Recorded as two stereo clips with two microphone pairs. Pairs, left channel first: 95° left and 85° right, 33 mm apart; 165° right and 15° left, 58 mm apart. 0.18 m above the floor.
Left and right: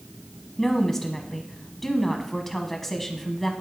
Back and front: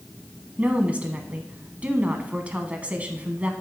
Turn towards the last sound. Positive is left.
turn(degrees=30)